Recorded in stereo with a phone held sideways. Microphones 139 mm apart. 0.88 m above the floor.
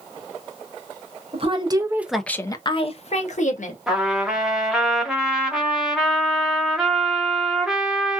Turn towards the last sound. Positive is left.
turn(degrees=-5)  # may be behind; listen again after turning